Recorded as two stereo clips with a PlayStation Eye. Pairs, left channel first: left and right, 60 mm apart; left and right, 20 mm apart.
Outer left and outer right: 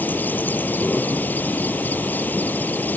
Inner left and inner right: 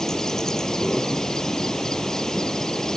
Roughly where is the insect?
Left.